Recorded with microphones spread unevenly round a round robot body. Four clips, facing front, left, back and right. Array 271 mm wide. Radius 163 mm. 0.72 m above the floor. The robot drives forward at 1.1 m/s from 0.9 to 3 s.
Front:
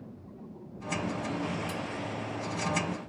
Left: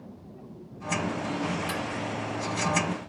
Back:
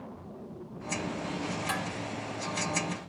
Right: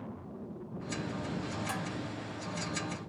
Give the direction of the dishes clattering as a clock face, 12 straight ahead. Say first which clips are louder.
Left 5 dB, back 3 dB; 6 o'clock.